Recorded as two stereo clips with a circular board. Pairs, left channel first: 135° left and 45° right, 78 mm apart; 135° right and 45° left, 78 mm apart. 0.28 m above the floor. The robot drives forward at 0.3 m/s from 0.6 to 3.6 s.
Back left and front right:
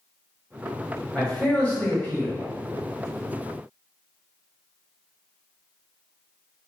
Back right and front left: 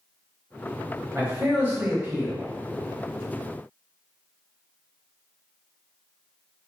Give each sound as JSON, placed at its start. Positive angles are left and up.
{"t": 1.1, "sound": "a man speaking", "azimuth_deg": 70, "distance_m": 1.1}